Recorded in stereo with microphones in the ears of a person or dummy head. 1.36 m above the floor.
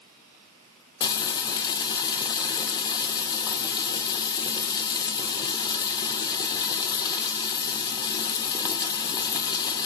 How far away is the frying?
About 0.6 m.